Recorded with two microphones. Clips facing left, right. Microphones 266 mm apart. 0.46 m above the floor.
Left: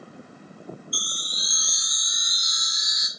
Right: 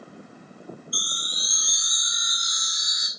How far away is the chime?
About 0.6 m.